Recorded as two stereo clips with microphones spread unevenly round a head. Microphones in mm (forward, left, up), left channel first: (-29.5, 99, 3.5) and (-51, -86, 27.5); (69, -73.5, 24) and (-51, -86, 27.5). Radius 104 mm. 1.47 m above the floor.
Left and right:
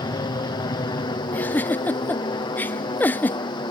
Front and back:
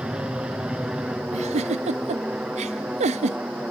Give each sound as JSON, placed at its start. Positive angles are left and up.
{"t": 0.0, "sound": "an aircraft", "azimuth_deg": 110}
{"t": 1.3, "sound": "a giggle", "azimuth_deg": 160}